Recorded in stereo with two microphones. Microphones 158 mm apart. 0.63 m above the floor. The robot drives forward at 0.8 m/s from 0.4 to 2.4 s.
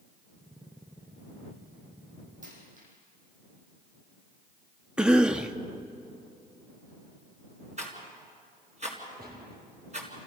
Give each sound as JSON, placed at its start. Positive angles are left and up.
{"t": 2.4, "sound": "a dropped coin", "side_deg": -55, "distance_m": 7.0}
{"t": 5.0, "sound": "a cough", "side_deg": -5, "distance_m": 0.6}
{"t": 7.8, "sound": "a rattle", "side_deg": -50, "distance_m": 4.0}
{"t": 9.2, "sound": "a gunshot", "side_deg": -80, "distance_m": 3.5}